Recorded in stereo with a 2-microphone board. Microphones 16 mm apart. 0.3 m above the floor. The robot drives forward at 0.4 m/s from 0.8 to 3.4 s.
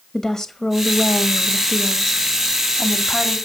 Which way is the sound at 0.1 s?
40° left (ahead or behind).